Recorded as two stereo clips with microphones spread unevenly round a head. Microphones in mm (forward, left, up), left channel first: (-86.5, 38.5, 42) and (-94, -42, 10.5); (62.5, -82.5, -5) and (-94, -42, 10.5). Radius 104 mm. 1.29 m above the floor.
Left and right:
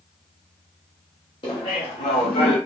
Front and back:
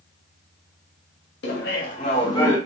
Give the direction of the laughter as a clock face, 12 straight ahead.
11 o'clock.